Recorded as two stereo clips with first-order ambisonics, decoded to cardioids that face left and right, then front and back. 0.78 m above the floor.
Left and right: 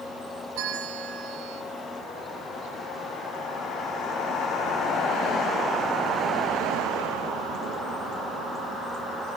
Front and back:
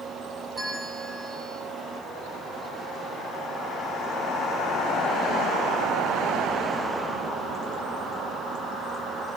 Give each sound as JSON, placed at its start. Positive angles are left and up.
{"t": 0.6, "sound": "a bell", "azimuth_deg": -90, "distance_m": 2.5}